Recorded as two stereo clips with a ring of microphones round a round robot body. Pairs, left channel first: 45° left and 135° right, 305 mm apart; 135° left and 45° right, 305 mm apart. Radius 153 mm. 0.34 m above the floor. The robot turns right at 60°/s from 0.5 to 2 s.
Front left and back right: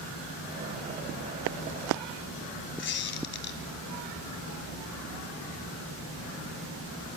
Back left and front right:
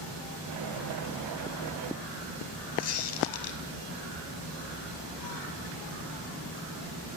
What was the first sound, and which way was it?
A squeak, 95° left.